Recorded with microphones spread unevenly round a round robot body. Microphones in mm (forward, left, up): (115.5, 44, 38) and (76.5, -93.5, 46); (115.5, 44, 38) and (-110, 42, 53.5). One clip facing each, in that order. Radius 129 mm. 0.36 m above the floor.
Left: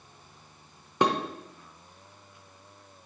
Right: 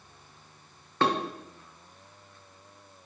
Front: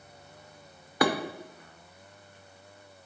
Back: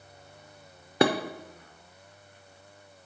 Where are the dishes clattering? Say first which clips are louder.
Left 1 dB, back 3 dB; 130° left, 0.6 m.